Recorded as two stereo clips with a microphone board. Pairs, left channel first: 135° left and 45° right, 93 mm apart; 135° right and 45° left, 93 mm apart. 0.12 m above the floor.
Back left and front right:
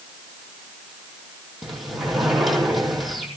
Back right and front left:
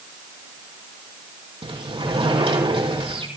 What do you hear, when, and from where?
1.6 s a sliding door: 45° left, 5.5 m